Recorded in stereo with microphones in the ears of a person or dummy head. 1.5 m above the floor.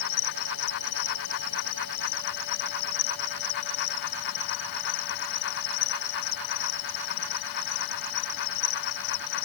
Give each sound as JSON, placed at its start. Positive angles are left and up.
{"t": 0.0, "sound": "an insect", "side_deg": 65}